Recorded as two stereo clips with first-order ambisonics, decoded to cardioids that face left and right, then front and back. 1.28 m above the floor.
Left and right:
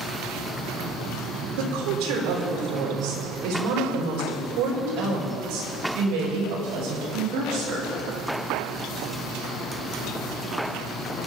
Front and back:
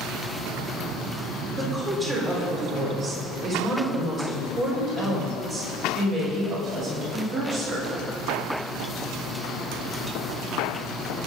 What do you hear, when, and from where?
1.6 s a woman speaking: 100° right, 4 m; by 7.9 s 120° right, 7 m